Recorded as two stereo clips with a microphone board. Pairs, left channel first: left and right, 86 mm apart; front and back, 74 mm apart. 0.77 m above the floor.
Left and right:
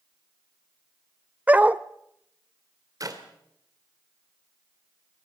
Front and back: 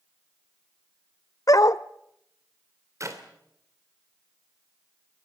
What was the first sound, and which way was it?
A dog barking, 20° right.